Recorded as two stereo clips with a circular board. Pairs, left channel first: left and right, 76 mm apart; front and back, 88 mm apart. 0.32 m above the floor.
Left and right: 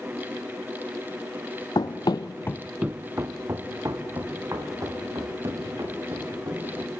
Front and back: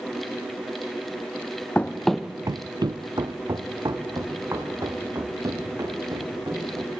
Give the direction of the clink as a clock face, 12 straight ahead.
No clink in this recording.